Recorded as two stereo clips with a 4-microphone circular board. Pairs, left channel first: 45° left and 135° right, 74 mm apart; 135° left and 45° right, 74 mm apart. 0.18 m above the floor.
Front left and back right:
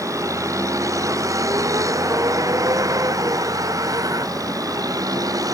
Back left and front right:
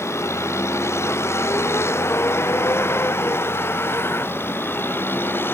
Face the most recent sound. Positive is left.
turn(degrees=-165)